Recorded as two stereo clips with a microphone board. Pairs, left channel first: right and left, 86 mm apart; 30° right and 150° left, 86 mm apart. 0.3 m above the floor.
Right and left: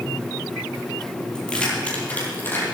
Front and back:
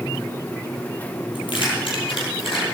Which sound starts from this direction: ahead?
Keys jangling, at 1.4 s.